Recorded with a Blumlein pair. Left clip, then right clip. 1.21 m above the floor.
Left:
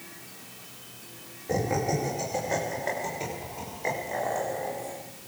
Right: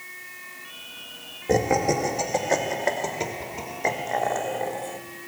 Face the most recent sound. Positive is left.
turn(degrees=-65)